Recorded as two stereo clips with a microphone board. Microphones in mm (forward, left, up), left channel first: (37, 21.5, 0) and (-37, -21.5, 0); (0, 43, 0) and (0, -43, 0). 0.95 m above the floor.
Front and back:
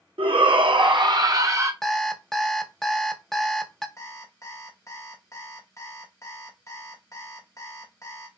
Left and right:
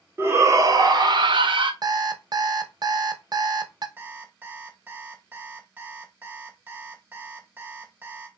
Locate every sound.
0.2 s a shout: 150° right, 1.1 m; by 1.7 s 95° right, 1.0 m
1.8 s an alarm clock: 55° right, 0.7 m
4.0 s an alarm clock: 25° right, 1.1 m